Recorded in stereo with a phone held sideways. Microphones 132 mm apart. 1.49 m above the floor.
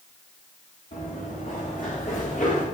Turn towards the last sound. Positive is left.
turn(degrees=75)  # may be behind; listen again after turning